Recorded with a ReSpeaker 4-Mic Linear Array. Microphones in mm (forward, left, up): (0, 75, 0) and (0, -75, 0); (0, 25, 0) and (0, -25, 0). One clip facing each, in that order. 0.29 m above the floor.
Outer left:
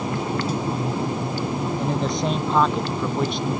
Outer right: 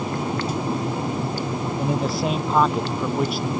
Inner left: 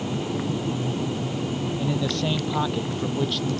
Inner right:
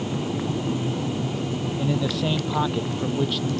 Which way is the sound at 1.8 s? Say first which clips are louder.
Outer right 3 dB, inner right 2 dB; 5° right (ahead or behind).